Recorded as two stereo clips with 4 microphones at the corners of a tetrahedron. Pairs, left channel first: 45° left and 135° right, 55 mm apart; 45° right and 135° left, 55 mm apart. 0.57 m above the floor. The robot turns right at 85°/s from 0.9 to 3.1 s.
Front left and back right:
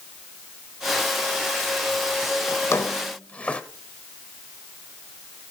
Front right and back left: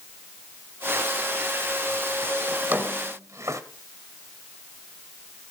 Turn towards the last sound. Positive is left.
turn(degrees=110)